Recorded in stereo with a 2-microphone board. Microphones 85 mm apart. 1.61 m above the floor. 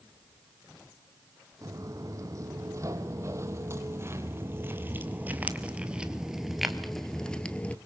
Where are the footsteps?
40° right (ahead or behind), 3.5 m; by 7.8 s 15° left (ahead or behind), 1.6 m.